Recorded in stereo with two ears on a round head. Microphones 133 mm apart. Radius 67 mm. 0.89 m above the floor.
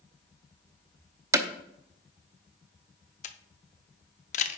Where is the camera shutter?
50° left (ahead or behind), 0.7 m.